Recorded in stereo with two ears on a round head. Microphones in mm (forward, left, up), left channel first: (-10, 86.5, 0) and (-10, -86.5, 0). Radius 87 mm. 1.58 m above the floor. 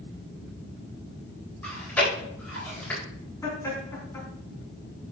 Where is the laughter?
15° left (ahead or behind), 3.5 m.